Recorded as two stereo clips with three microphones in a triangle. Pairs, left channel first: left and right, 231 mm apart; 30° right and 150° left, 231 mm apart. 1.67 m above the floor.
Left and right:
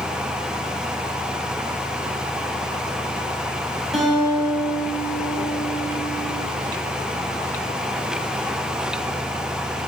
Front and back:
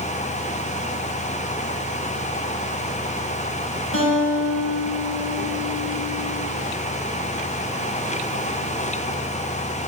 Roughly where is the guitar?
Ahead.